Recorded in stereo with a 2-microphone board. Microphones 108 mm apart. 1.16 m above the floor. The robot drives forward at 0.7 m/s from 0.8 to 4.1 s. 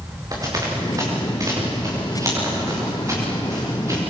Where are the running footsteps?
35° right (ahead or behind), 8 m; by 4.0 s 30° right (ahead or behind), 8.5 m.